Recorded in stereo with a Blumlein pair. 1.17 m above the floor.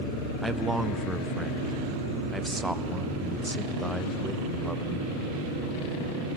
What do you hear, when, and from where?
0.4 s a man speaking: 5° right, 0.9 m